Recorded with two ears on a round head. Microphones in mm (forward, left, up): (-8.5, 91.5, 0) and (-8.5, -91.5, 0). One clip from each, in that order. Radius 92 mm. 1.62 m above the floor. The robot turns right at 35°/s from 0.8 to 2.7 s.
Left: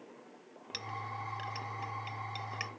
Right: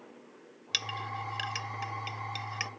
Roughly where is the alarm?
No alarm in this recording.